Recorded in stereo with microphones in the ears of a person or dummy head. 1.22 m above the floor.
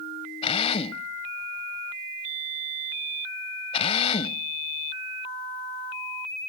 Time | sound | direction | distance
0.4 | a drill | 35° left (ahead or behind) | ?